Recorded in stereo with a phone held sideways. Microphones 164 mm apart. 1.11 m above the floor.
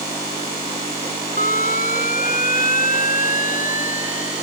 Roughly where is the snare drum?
No snare drum in this recording.